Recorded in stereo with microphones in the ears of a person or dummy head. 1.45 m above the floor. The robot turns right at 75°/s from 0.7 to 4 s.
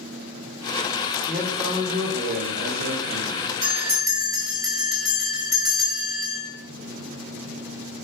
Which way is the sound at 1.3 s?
175° left.